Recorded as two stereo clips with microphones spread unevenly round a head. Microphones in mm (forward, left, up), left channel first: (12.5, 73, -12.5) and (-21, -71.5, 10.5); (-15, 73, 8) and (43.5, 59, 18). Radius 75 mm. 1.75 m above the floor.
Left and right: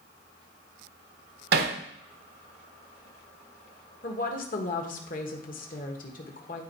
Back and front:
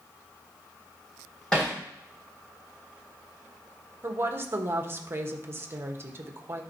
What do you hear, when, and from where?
1.5 s hammering: 105° right, 1.2 m
4.0 s a woman speaking: 35° left, 1.5 m